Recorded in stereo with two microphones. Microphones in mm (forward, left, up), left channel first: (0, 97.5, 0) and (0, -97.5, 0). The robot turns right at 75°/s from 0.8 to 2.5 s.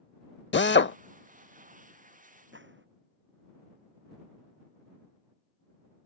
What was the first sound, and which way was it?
A drill, 65° left (ahead or behind).